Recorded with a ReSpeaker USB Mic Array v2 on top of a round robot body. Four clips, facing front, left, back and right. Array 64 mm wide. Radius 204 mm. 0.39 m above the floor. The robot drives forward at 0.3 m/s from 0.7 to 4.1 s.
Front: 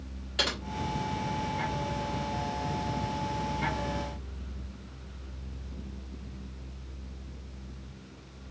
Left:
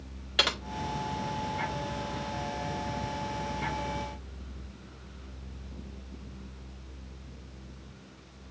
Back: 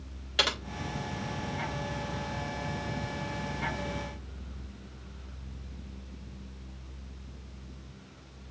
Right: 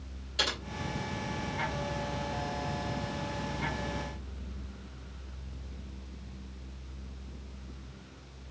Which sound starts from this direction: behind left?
Typing on a keyboard, at 0.4 s.